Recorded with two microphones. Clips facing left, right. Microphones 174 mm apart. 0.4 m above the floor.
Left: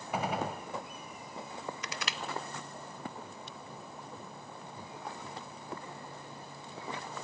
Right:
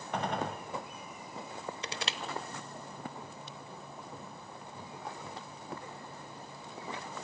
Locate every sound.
0.1 s a gunshot: 5° left (ahead or behind), 1.0 m
1.8 s crushing: 30° right (ahead or behind), 0.8 m